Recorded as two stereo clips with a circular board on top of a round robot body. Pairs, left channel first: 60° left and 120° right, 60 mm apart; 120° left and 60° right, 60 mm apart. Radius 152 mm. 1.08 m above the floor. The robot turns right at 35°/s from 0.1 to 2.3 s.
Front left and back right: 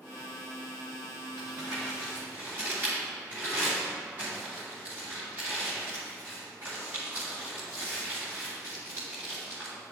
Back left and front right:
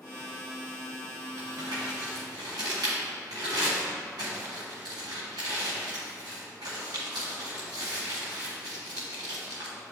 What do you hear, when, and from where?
1.4 s crumpling: 90° right, 1.6 m; by 9.7 s 60° right, 1.6 m